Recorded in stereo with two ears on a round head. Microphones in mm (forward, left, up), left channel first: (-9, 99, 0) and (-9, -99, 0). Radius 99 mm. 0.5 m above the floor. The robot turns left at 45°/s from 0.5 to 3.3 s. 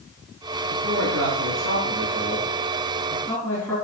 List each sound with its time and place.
0.7 s a man speaking: 75° right, 4.5 m; by 3.8 s 170° left, 4.5 m